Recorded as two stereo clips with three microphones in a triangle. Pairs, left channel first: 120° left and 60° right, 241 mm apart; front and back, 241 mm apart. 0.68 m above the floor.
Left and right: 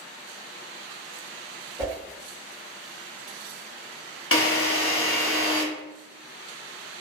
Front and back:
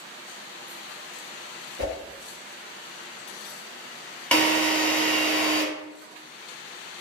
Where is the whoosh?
130° right, 1.9 m.